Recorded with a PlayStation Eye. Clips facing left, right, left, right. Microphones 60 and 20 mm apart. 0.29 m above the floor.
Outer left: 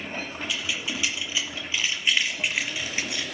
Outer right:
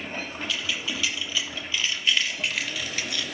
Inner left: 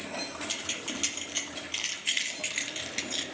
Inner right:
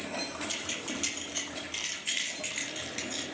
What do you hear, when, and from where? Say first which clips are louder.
0.5 s keys jangling: even, inner left 1 dB; 15° left (ahead or behind), 6 m; by 3.2 s 25° left (ahead or behind), 2.5 m